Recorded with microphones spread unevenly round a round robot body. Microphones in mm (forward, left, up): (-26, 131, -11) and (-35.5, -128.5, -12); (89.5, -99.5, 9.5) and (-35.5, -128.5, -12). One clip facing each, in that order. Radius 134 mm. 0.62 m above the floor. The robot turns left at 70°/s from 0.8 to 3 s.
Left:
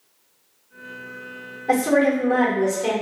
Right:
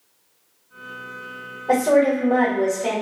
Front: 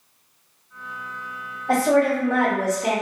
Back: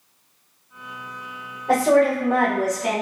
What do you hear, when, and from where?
1.7 s a woman speaking: 140° left, 1.4 m; by 2.9 s 55° left, 1.4 m